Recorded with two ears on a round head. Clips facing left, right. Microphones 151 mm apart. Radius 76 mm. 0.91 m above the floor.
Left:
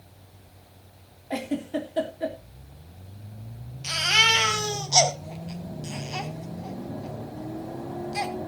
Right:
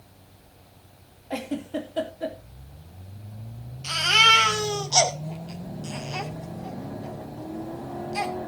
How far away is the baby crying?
About 2.5 m.